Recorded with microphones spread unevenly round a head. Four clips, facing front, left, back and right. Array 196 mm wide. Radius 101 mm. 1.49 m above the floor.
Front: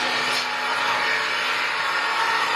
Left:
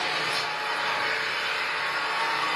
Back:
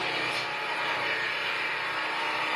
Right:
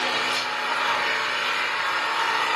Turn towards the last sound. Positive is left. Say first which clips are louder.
# right 3 dB, front 7 dB
turn(degrees=-35)